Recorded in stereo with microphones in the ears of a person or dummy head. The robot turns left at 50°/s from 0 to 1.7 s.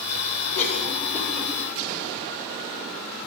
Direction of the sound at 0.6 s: 45° left (ahead or behind).